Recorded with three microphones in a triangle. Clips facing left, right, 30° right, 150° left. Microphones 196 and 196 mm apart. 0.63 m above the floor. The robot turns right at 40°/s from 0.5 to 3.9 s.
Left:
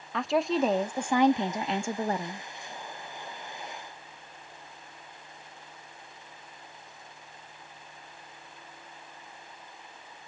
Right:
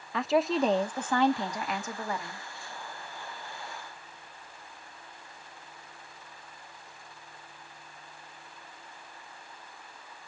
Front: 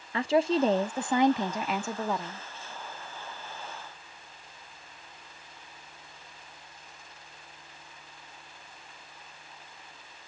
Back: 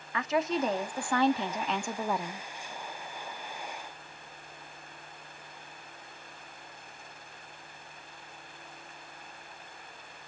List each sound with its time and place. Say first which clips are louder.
0.1 s a woman speaking: even, front 5 dB; straight ahead, 0.7 m; by 2.5 s 75° left, 0.7 m